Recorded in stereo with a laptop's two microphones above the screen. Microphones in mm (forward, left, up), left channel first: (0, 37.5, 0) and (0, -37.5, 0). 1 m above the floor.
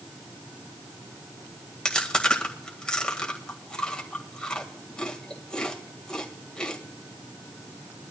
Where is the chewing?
10° left (ahead or behind), 1.9 m.